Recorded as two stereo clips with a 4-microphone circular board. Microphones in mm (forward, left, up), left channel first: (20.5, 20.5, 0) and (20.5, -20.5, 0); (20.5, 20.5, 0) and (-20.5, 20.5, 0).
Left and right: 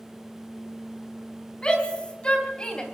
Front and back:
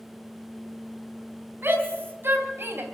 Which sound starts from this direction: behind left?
A shout, at 1.6 s.